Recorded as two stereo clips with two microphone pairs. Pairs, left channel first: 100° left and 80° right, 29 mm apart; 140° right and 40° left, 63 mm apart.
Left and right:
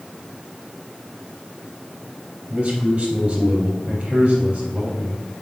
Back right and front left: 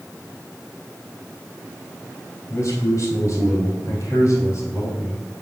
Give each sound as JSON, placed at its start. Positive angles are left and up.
{"t": 2.5, "sound": "a man speaking", "azimuth_deg": -125, "distance_m": 3.0}